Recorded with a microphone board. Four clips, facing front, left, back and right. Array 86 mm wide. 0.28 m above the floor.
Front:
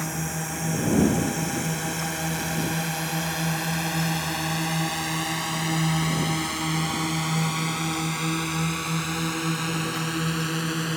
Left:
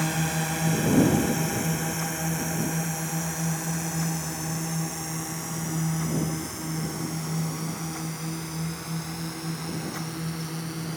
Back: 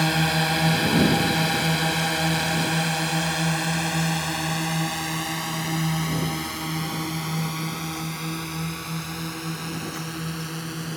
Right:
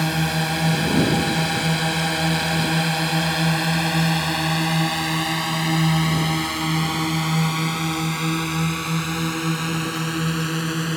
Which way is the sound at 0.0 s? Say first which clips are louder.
Right 5 dB, back 8 dB; 155° right.